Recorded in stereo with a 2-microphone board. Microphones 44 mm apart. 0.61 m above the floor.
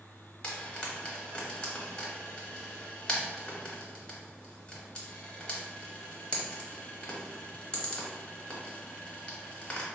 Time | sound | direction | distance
0.4 | frying | 20° left (ahead or behind) | 0.8 m